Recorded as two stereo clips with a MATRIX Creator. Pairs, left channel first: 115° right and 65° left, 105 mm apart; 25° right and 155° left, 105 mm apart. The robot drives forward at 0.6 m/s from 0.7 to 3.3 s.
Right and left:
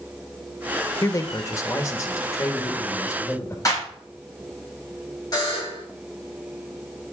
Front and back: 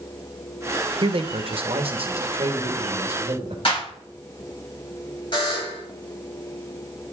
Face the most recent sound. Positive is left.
turn(degrees=-65)